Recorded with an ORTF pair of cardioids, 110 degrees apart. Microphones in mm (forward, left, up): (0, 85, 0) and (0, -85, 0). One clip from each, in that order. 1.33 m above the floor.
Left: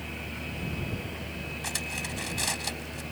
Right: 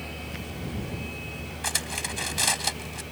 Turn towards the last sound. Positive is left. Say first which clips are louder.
# right 5 dB
turn(degrees=-30)